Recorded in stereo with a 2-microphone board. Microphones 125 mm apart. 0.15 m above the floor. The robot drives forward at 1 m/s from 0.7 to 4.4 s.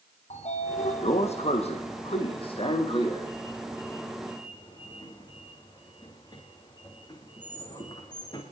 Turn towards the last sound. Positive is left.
turn(degrees=40)  # may be behind; listen again after turning